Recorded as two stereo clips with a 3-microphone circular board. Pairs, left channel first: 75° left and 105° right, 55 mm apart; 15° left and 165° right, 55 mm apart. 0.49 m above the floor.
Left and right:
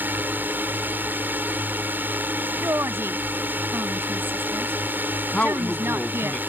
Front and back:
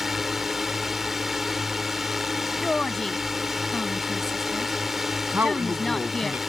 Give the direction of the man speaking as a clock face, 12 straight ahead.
7 o'clock.